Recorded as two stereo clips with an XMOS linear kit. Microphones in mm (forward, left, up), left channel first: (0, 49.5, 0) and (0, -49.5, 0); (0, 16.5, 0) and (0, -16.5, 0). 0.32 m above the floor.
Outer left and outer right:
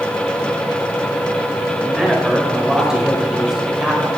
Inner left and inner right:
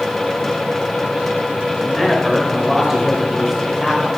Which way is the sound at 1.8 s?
5° right (ahead or behind).